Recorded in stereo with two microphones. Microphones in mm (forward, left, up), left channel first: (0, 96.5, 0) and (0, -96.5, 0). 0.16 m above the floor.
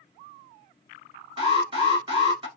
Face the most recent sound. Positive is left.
turn(degrees=-30)  # may be behind; listen again after turning